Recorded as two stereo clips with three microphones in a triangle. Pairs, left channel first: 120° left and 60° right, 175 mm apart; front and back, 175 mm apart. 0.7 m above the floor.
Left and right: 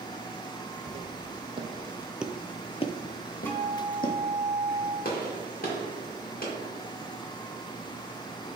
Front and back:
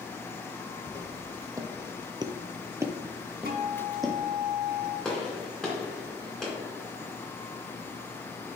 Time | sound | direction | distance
0.9 | footsteps | 105° right | 1.8 m
3.5 | a guitar | 160° right | 2 m
5.0 | a gunshot | 85° left | 2.5 m